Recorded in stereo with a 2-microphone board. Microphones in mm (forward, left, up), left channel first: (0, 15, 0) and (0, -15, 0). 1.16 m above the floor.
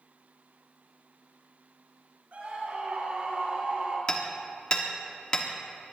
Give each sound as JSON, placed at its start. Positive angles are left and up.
{"t": 2.3, "sound": "a scream", "side_deg": -55, "distance_m": 6.5}
{"t": 4.1, "sound": "hammering", "side_deg": 40, "distance_m": 1.7}